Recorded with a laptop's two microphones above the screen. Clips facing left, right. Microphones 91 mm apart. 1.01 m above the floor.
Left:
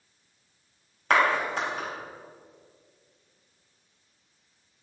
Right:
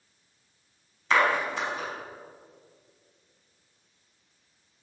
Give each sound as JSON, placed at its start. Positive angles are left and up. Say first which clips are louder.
{"t": 1.1, "sound": "a clap", "louder": "left 1 dB", "side_deg": 60, "distance_m": 4.5}